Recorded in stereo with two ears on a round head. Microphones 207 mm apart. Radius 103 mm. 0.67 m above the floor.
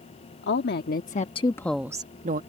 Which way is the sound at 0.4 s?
50° left (ahead or behind).